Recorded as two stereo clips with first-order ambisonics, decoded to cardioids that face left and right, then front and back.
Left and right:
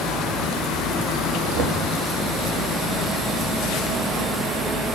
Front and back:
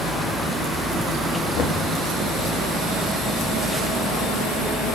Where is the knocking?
50° right, 1.1 m.